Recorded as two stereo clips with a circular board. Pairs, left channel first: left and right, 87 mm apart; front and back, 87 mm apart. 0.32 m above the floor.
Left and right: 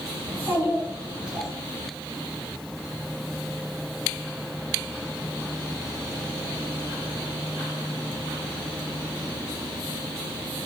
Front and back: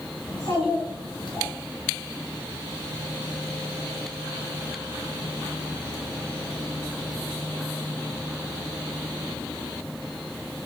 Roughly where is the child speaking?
Ahead right.